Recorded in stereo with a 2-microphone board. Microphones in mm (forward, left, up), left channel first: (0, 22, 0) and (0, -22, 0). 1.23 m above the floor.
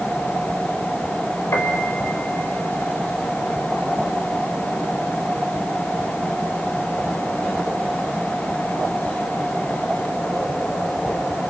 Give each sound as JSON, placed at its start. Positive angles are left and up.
{"t": 1.5, "sound": "a piano", "side_deg": 80, "distance_m": 4.0}